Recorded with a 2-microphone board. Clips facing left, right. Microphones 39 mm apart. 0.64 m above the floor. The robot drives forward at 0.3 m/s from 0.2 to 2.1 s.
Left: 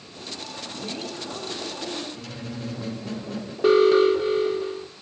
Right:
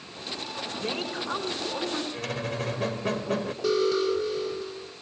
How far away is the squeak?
About 1.7 m.